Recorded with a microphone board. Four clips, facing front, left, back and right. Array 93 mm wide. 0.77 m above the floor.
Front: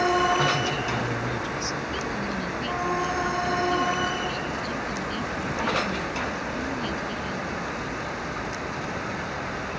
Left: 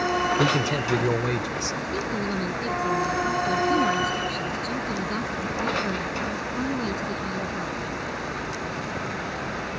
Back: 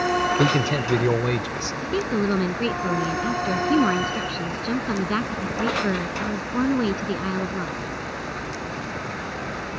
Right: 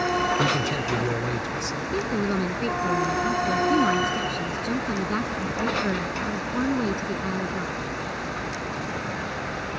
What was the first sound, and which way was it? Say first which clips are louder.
A man speaking: left 1 dB, back 4 dB; 165° left.